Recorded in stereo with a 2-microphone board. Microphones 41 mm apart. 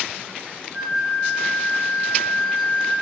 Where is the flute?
5° right (ahead or behind), 1.1 m.